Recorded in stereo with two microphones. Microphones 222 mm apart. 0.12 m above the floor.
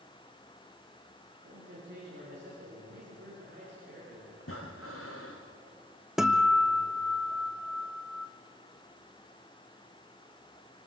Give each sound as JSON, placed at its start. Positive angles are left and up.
{"t": 1.4, "sound": "a man speaking", "side_deg": -55, "distance_m": 9.5}
{"t": 4.4, "sound": "breathing", "side_deg": 75, "distance_m": 4.0}
{"t": 6.2, "sound": "a guitar", "side_deg": 0, "distance_m": 1.6}